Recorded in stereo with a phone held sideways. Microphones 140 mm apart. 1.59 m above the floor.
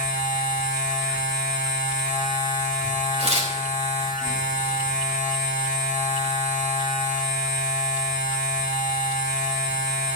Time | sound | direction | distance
0.0 | a machine running | 65° left (ahead or behind) | 2 m
3.2 | tearing paper | 45° right (ahead or behind) | 4.5 m